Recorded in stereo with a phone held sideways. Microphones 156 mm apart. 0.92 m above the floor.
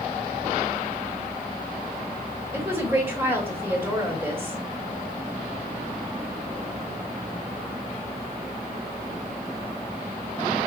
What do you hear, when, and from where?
2.5 s a woman speaking: 15° right (ahead or behind), 1.8 m